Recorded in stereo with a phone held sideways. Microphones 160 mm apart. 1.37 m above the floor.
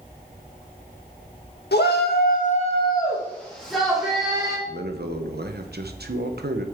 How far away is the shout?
About 1.6 m.